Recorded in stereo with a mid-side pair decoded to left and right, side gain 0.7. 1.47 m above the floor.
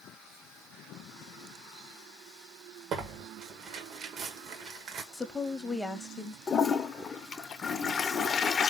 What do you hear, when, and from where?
2.9 s tearing paper: 50° right, 1.2 m
5.1 s a woman speaking: 10° left, 0.7 m
6.5 s a toilet flushing: 30° left, 0.5 m